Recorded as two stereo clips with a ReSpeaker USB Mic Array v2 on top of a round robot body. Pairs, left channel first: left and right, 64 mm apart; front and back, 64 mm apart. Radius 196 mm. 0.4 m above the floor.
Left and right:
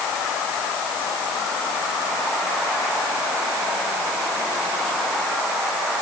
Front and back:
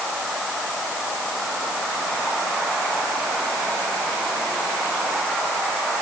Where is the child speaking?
No child speaking in this recording.